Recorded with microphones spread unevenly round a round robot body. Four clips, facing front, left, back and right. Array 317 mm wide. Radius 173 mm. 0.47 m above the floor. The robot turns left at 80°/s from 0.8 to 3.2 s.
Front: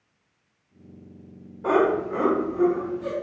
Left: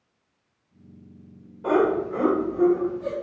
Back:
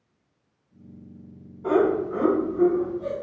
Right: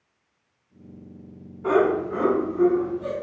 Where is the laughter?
15° left, 1.6 m; by 3.1 s 105° right, 1.6 m.